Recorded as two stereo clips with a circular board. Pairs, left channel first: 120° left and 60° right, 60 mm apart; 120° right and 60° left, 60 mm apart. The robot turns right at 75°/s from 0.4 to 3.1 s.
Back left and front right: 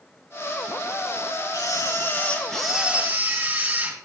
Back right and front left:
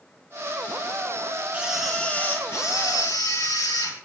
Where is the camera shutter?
130° left, 2.5 m; by 4.0 s 115° right, 2.5 m.